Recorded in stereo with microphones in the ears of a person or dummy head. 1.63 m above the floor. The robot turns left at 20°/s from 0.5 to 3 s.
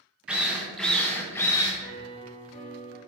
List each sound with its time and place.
0.3 s a drill: centre (ahead or behind), 0.5 m; by 1.7 s 20° left (ahead or behind), 0.5 m
1.8 s a piano: 45° left (ahead or behind), 0.9 m; by 3.0 s 20° left (ahead or behind), 0.9 m